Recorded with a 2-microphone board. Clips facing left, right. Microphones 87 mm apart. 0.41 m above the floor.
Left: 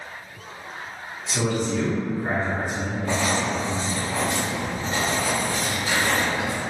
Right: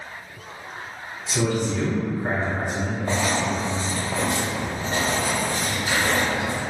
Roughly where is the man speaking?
Centre.